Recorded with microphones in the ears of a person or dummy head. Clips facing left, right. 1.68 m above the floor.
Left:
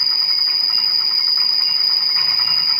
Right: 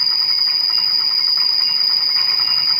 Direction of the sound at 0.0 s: 25° right (ahead or behind).